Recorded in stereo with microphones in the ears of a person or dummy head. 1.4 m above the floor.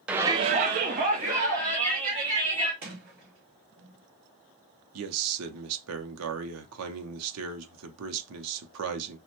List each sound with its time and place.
0.1 s a shout: 5° right (ahead or behind), 0.5 m; by 2.7 s 40° right (ahead or behind), 2 m
2.8 s a sliding door: 50° right (ahead or behind), 1.5 m
4.9 s a man speaking: 80° right, 0.5 m